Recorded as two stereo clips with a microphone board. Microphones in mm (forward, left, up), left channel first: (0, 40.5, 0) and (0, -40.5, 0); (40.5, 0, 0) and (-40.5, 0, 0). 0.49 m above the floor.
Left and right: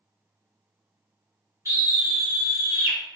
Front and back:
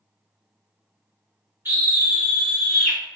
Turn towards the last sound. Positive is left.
turn(degrees=-75)